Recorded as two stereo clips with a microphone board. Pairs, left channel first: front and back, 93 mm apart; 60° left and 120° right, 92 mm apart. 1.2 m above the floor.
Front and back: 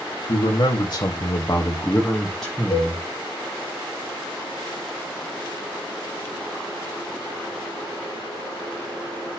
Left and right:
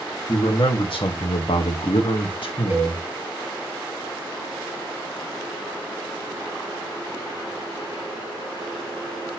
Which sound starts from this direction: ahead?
A man speaking, at 0.3 s.